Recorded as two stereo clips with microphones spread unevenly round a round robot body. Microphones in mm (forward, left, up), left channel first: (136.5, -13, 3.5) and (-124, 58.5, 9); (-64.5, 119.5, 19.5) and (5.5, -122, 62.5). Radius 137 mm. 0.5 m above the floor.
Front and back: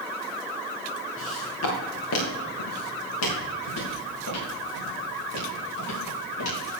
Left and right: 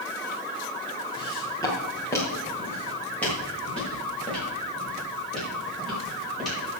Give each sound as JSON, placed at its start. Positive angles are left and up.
{"t": 1.2, "sound": "footsteps", "azimuth_deg": 30, "distance_m": 3.0}